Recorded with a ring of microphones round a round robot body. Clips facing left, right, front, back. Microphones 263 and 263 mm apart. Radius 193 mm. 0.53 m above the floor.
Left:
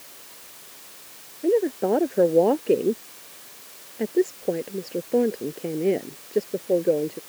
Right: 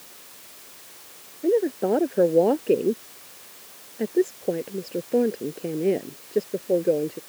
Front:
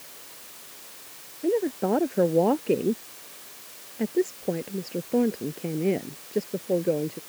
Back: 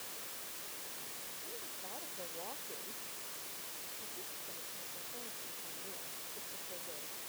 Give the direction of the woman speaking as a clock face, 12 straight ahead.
12 o'clock.